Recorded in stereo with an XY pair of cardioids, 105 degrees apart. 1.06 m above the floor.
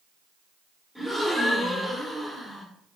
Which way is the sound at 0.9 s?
5° left.